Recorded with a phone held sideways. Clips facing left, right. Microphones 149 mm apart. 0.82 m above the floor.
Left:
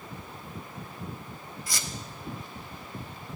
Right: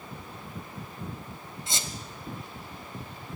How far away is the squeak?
About 1.0 m.